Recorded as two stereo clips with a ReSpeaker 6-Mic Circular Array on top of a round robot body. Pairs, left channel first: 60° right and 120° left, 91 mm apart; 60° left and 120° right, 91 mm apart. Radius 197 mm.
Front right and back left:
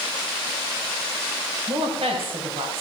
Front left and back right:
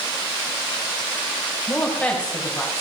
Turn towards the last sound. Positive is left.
turn(degrees=145)